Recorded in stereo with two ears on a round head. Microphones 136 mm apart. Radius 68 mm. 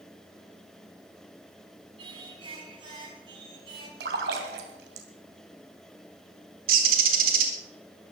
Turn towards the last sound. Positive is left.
turn(degrees=-65)  # may be behind; listen again after turning